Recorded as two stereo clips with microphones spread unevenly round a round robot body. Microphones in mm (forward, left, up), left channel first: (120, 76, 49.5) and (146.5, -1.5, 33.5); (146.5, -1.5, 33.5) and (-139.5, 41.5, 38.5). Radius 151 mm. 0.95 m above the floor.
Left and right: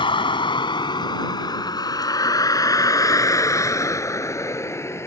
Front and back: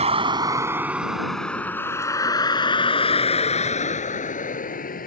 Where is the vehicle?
100° left; by 5.1 s 55° left.